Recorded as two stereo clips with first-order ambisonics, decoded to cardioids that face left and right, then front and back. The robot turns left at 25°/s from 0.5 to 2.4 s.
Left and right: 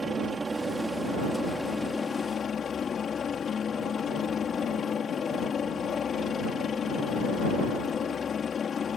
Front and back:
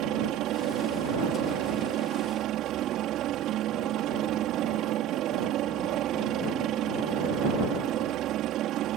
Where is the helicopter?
160° right; by 9.0 s 150° left.